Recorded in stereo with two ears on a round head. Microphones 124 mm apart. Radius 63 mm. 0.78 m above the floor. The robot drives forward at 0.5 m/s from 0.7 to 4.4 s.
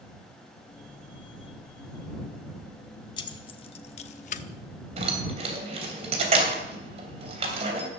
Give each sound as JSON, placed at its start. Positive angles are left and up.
{"t": 3.2, "sound": "keys jangling", "side_deg": 30, "distance_m": 1.2}
{"t": 5.0, "sound": "keys jangling", "side_deg": -45, "distance_m": 3.0}